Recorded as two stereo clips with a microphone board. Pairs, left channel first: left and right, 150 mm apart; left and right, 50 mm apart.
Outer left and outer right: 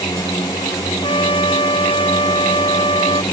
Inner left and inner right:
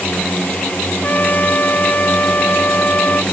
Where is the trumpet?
35° left (ahead or behind).